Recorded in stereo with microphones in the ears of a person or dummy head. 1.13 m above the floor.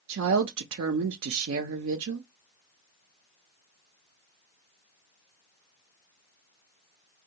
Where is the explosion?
I don't hear an explosion.